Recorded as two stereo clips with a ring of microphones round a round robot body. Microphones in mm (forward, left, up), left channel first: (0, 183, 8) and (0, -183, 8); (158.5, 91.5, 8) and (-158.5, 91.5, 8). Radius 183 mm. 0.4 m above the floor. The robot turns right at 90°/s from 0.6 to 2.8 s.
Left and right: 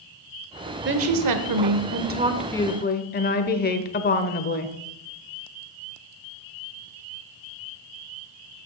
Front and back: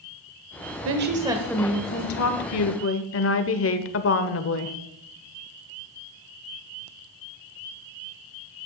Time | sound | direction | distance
0.8 | a woman speaking | 145° right | 1.3 m